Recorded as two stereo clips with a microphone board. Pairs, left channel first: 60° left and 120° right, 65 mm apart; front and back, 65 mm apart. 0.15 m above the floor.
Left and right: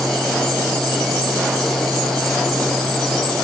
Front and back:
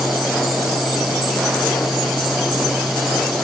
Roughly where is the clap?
I don't hear a clap.